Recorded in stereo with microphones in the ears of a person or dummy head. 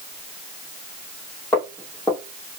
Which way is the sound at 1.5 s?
10° left (ahead or behind).